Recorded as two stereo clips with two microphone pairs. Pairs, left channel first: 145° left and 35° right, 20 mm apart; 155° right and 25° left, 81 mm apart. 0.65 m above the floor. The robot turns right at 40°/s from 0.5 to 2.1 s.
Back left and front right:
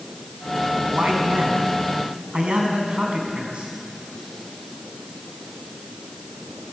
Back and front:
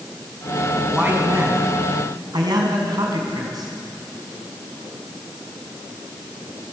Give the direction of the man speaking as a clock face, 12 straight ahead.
2 o'clock.